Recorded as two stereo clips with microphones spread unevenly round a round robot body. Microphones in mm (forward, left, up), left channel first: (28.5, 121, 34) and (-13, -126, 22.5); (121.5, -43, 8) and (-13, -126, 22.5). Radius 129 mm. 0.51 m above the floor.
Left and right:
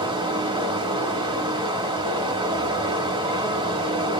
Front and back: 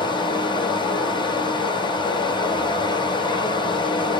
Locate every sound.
0.0 s running water: 30° right, 1.5 m